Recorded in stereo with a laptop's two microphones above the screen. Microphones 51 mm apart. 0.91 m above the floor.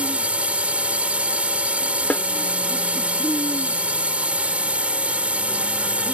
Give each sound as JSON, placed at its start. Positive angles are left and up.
{"t": 0.0, "sound": "a drone", "side_deg": -30}
{"t": 2.1, "sound": "a snare drum", "side_deg": 30}